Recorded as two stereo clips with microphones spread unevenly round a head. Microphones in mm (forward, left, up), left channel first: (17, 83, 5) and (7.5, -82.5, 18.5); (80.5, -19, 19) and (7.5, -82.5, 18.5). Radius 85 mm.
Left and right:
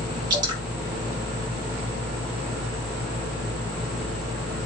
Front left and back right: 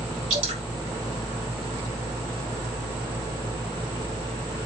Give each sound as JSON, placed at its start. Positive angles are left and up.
{"t": 0.3, "sound": "dripping", "azimuth_deg": -160, "distance_m": 3.0}